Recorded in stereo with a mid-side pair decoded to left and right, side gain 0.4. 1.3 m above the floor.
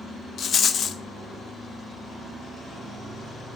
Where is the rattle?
60° left, 0.6 m.